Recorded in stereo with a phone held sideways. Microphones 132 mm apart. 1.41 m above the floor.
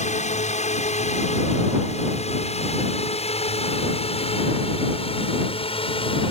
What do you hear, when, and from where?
0.0 s a drone: 60° left (ahead or behind); by 6.3 s 45° left (ahead or behind)